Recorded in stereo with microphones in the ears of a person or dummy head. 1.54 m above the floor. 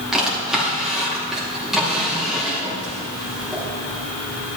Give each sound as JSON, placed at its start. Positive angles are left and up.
{"t": 0.1, "sound": "a drawer", "side_deg": -5, "distance_m": 1.9}